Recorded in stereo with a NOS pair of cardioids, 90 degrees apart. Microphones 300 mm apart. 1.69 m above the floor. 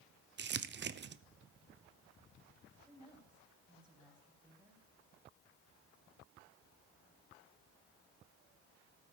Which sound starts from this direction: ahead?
A woman speaking, at 2.9 s.